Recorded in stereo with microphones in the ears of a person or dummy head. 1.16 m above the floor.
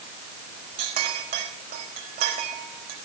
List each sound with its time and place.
0.8 s a clink: 40° right (ahead or behind), 4 m